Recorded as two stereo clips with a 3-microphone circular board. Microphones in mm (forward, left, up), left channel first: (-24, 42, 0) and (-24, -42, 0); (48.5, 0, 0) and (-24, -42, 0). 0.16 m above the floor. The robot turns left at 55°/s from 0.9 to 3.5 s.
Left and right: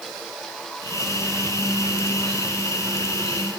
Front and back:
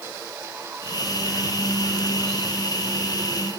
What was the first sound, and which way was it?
Only background noise.